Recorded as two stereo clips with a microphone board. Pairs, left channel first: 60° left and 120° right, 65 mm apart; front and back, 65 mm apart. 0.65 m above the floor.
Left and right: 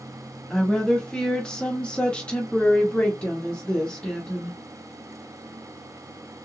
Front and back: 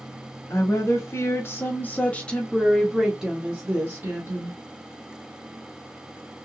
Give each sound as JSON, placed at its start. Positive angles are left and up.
{"t": 0.5, "sound": "a woman speaking", "azimuth_deg": -20, "distance_m": 1.4}